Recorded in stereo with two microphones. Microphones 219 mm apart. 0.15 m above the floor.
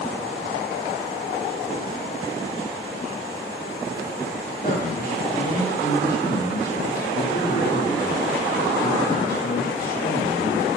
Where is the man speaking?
45° left (ahead or behind), 5 m.